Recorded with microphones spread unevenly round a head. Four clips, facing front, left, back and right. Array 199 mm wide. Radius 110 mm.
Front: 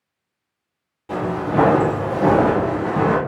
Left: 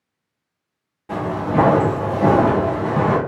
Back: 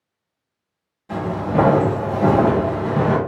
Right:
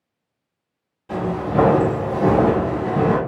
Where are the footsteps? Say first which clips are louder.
Left 1 dB, even; 50° left, 1.4 m; by 3.2 s 145° left, 1.6 m.